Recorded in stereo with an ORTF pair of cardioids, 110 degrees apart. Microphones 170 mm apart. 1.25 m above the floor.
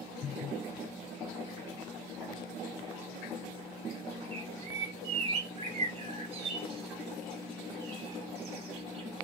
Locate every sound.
4.3 s a bird: 35° right, 0.6 m